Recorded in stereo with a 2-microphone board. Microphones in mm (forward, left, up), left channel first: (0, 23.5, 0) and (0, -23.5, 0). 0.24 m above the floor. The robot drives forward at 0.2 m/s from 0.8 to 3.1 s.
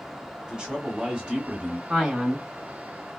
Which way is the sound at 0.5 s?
15° right (ahead or behind).